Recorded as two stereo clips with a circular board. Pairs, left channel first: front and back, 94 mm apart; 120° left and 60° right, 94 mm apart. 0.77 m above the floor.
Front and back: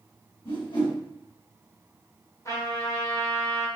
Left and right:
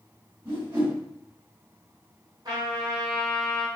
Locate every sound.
0.5 s a whoosh: 5° right, 1.9 m
2.5 s a trumpet: 40° right, 1.0 m